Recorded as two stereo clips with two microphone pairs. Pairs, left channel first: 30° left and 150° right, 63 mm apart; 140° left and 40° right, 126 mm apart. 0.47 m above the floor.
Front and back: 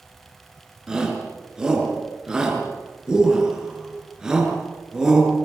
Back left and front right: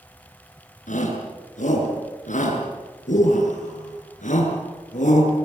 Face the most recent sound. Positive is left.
turn(degrees=135)